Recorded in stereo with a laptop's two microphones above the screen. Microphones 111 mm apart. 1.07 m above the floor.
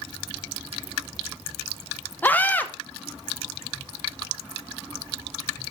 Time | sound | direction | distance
2.2 | a scream | 15° left (ahead or behind) | 0.7 m